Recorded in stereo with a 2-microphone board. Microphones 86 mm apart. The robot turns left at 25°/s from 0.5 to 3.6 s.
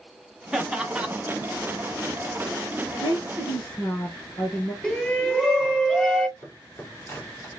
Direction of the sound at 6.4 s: 30° left (ahead or behind).